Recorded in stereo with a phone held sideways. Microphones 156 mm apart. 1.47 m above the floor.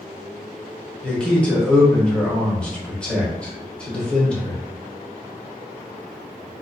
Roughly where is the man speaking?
Centre.